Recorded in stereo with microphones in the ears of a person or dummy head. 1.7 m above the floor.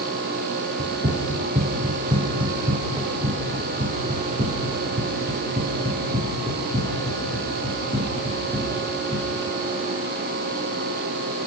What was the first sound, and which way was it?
Running footsteps, 20° right (ahead or behind).